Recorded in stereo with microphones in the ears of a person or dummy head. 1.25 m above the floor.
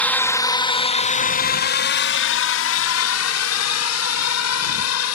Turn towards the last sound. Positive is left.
turn(degrees=80)